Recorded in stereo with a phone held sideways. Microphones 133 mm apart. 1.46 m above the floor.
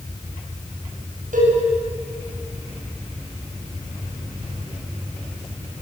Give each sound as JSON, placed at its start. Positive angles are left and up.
{"t": 1.3, "sound": "a cowbell", "side_deg": -85, "distance_m": 8.5}